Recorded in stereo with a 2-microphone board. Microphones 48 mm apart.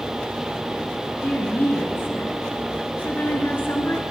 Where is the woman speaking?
40° left (ahead or behind), 2 m.